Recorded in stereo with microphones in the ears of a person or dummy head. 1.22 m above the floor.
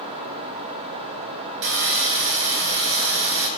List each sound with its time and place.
1.6 s sawing: 65° right (ahead or behind), 2.5 m